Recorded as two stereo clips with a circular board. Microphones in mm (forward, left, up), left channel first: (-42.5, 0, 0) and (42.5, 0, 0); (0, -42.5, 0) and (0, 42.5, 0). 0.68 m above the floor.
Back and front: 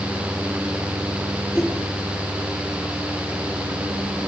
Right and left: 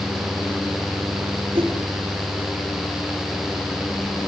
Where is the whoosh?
95° left, 7.5 m.